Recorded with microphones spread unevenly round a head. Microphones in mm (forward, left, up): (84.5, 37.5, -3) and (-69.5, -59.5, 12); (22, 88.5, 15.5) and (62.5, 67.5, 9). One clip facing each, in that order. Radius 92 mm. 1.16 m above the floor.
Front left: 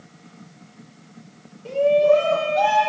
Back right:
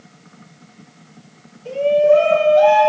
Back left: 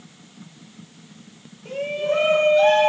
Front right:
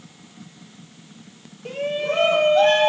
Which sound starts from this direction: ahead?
A shout, at 1.6 s.